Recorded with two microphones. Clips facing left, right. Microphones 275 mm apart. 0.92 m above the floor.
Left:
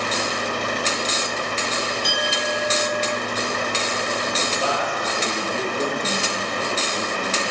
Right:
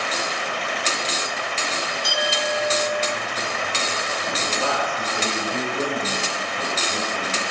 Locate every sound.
2.0 s a clink: 70° left (ahead or behind), 1.7 m
4.5 s a man speaking: 55° right (ahead or behind), 2.5 m